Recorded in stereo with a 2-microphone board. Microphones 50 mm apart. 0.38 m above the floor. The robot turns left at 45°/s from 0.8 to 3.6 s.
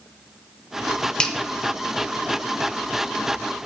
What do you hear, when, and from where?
1.2 s a finger snap: 15° left (ahead or behind), 0.7 m